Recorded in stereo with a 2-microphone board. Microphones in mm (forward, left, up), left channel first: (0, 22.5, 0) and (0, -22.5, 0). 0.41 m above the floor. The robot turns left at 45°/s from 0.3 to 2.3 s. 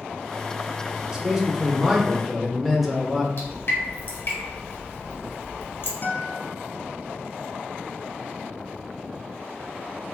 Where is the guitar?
50° left (ahead or behind), 0.7 m.